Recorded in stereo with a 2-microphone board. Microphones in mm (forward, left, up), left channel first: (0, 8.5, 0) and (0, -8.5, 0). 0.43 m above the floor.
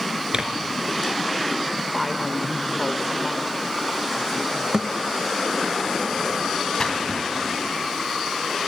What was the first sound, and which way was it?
Tearing paper, 50° right (ahead or behind).